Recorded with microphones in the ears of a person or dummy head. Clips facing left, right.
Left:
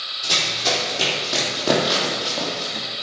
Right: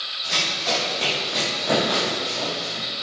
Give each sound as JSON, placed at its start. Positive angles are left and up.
{"t": 0.2, "sound": "running footsteps", "side_deg": 60, "distance_m": 4.5}